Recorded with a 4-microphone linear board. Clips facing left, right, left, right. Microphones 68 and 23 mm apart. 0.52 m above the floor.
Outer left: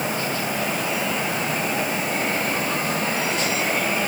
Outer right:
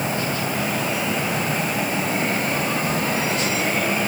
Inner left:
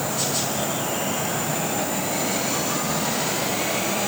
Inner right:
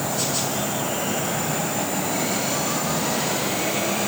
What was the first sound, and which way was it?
Only background noise.